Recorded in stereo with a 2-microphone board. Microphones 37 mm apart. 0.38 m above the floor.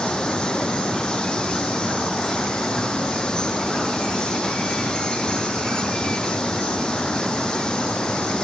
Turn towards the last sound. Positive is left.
turn(degrees=25)  # may be behind; listen again after turning